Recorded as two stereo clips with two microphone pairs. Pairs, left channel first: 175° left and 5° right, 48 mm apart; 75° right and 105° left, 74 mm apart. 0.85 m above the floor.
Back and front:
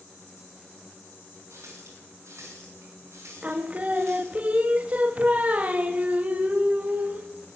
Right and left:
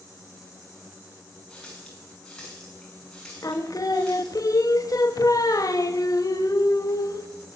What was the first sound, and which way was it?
A running tap, 5° left.